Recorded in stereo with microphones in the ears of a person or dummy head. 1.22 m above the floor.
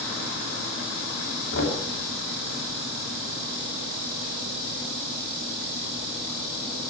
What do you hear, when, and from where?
1.5 s knocking: 65° left (ahead or behind), 2.5 m